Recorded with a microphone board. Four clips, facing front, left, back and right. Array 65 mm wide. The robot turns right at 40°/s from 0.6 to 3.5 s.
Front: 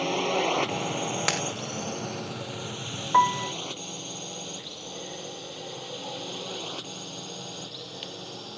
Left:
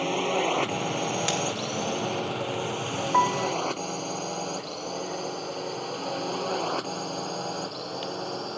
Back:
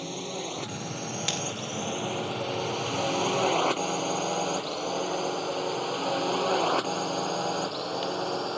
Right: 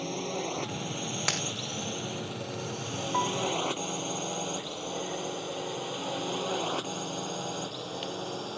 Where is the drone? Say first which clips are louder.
Left 8 dB, front 9 dB; 55° left; by 8.6 s 160° left.